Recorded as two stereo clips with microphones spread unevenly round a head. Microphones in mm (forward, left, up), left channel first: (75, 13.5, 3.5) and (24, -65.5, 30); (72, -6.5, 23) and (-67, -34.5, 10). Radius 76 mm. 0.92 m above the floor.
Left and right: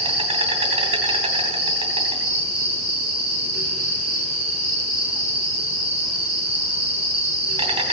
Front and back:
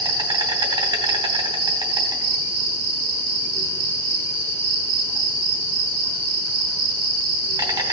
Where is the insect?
110° right, 3 m.